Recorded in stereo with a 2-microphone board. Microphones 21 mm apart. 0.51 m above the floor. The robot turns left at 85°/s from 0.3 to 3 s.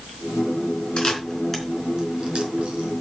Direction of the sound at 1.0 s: 65° left (ahead or behind).